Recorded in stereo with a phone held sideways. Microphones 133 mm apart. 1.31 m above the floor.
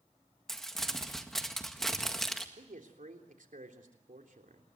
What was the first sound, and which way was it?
Crumpling, 5° left (ahead or behind).